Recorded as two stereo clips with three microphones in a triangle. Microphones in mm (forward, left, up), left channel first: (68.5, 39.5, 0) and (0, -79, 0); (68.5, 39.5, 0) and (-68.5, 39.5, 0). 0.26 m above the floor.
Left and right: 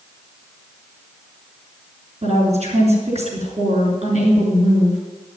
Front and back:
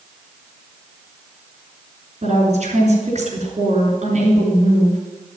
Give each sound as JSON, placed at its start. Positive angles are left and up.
{"t": 2.2, "sound": "a woman speaking", "azimuth_deg": -150, "distance_m": 3.5}